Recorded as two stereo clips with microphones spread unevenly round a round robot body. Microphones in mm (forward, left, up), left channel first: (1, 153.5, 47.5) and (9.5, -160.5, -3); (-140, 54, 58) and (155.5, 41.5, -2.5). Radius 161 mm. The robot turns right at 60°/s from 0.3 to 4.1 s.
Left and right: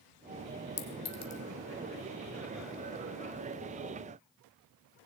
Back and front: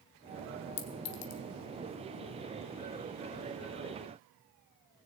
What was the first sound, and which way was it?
A clink, 145° left.